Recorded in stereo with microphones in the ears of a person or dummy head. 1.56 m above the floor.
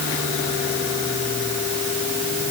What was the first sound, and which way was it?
Only background noise.